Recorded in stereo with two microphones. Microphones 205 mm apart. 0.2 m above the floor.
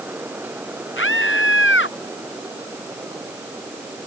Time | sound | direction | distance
1.0 | a scream | 75° left (ahead or behind) | ?